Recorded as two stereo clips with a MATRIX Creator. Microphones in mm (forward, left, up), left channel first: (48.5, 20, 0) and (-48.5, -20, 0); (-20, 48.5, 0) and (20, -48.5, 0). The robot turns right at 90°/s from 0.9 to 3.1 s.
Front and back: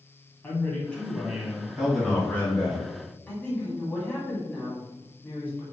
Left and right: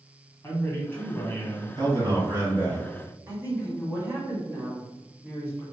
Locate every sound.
0.4 s a man speaking: 80° left, 1.3 m; by 2.8 s 110° right, 1.3 m
1.8 s a man speaking: 80° right, 2.0 m; by 2.8 s 15° left, 2.0 m
3.3 s a woman speaking: 35° right, 1.7 m